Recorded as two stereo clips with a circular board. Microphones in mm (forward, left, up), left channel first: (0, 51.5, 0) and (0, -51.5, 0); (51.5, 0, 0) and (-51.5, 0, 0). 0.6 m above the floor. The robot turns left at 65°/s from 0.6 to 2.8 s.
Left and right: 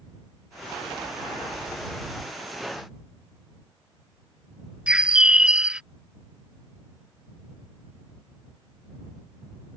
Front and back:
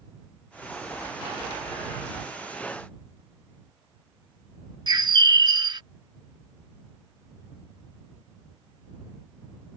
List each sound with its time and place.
4.9 s a bird: 165° right